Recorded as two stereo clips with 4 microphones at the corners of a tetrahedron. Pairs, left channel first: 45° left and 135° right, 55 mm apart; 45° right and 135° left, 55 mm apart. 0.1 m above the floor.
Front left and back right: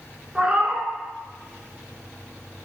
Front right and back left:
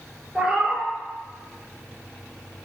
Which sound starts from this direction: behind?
A cat meowing, at 0.3 s.